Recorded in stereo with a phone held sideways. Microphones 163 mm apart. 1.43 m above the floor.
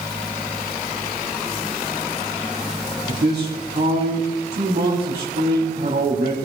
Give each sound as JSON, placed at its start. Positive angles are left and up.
{"t": 3.1, "sound": "a man speaking", "side_deg": -85, "distance_m": 3.5}